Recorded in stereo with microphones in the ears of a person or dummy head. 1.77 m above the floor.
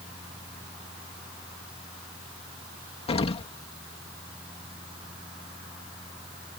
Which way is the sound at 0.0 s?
5° right (ahead or behind).